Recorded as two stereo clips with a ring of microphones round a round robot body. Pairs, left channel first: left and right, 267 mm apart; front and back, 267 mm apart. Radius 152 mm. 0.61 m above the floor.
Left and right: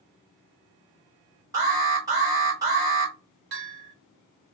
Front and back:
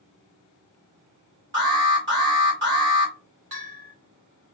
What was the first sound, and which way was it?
An alarm, 160° right.